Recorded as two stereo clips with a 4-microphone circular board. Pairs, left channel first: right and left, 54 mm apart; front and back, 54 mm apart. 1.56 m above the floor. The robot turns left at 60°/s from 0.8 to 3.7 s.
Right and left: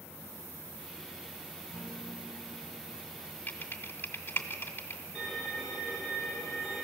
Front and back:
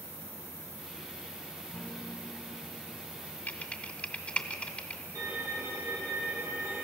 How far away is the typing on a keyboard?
About 1.7 m.